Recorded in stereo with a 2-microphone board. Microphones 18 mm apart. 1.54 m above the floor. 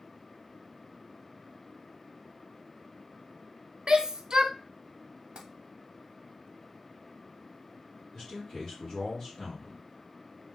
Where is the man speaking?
35° left (ahead or behind), 1.3 m.